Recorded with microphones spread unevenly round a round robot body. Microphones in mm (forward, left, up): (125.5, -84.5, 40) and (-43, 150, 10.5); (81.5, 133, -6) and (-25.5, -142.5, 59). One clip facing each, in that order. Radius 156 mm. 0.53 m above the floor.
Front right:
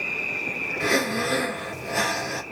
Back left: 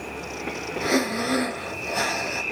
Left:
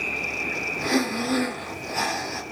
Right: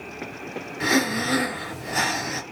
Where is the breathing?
110° right, 2 m.